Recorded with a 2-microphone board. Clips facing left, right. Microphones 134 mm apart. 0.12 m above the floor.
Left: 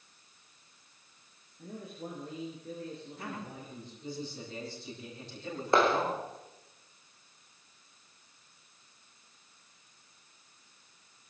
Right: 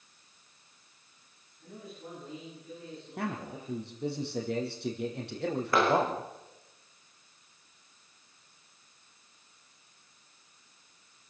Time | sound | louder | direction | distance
1.6 | a man speaking | left 3 dB | 50° left (ahead or behind) | 8 m
3.2 | a man speaking | right 5 dB | 75° right (ahead or behind) | 4.5 m
5.7 | a clap | even | 25° left (ahead or behind) | 6.5 m